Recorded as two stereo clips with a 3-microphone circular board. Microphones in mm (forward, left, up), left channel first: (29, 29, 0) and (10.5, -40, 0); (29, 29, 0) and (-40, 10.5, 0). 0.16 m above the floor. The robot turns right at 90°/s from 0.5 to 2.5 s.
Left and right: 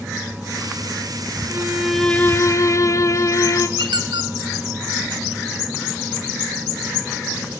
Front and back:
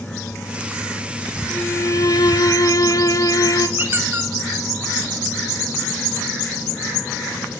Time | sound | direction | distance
1.5 | a violin | 50° right | 1.0 m
3.8 | a squeak | 105° right | 1.2 m